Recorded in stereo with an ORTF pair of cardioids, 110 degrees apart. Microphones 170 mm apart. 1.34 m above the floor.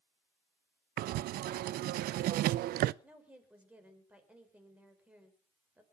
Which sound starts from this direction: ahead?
A woman speaking, at 3.0 s.